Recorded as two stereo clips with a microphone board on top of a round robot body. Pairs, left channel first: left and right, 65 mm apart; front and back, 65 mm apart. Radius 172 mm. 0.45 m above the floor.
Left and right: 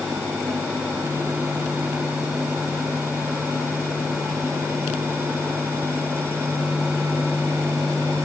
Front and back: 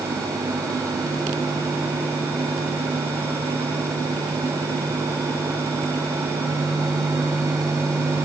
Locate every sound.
Only background noise.